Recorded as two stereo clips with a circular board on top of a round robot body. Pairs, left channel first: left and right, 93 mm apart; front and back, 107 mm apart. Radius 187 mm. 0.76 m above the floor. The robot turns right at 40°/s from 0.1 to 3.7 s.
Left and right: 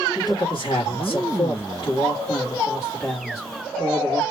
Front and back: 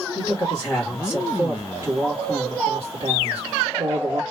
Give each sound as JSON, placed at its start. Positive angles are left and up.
{"t": 0.1, "sound": "a man speaking", "azimuth_deg": 45, "distance_m": 2.0}